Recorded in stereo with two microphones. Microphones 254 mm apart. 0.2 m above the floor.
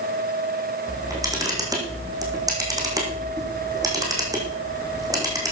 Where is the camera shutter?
15° right (ahead or behind), 4 m.